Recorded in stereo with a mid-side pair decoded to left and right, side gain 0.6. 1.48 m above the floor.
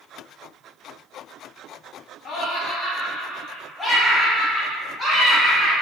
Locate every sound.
2.2 s laughter: 45° left, 0.7 m; by 5.7 s straight ahead, 2 m